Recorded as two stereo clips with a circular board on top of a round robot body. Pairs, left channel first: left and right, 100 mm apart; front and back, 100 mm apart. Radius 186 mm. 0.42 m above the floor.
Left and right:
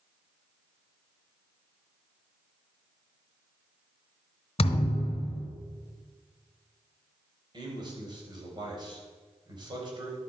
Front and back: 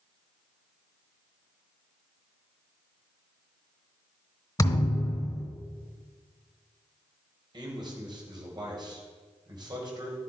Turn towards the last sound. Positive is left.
turn(degrees=-135)